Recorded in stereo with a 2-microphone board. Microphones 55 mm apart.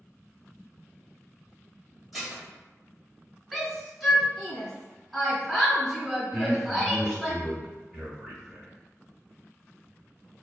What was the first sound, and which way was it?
Dishes clattering, 5° right (ahead or behind).